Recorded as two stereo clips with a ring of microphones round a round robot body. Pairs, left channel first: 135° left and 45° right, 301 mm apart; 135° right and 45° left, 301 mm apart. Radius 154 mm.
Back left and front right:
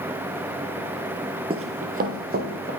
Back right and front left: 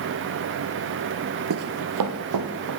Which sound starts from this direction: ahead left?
Running footsteps, at 1.5 s.